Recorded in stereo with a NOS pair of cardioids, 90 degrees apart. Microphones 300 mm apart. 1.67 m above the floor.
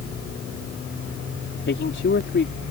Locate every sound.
1.7 s a man speaking: 40° left